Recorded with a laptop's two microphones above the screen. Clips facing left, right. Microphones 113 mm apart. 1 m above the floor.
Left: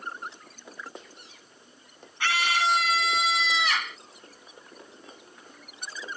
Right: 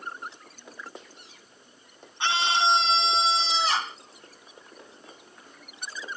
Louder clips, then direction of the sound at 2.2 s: Right 2 dB; 25° right (ahead or behind).